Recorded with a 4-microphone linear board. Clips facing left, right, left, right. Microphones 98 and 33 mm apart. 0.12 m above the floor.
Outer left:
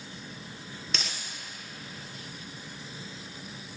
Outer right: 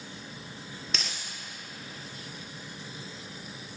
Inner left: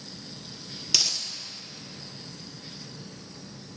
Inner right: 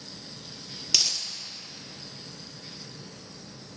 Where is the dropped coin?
Centre (ahead or behind), 0.8 m.